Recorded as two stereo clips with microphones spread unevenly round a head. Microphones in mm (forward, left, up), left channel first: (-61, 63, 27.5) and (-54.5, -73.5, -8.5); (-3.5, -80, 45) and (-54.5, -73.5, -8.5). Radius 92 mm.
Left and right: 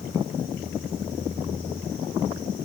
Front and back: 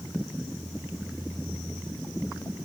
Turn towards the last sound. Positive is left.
No sound to turn to.